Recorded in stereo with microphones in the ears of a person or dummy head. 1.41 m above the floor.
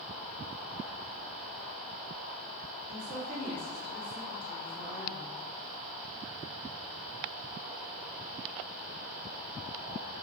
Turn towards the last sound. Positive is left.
turn(degrees=-35)  # may be behind; listen again after turning